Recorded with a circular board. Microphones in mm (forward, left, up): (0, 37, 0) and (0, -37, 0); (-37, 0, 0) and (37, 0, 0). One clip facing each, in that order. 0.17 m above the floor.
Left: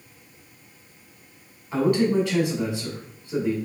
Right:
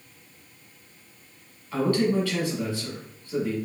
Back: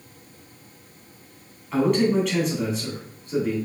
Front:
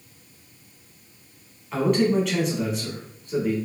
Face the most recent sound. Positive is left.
turn(degrees=90)